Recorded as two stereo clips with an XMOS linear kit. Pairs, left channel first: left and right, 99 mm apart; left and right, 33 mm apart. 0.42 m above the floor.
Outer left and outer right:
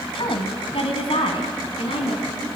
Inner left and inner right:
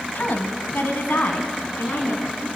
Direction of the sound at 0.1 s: 65° left (ahead or behind).